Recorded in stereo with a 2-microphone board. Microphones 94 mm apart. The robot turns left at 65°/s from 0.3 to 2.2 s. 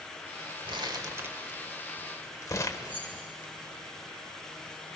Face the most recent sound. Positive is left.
turn(degrees=-15)  # may be behind; listen again after turning